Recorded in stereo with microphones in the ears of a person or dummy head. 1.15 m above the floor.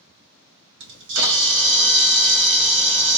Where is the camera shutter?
75° right (ahead or behind), 1.2 m.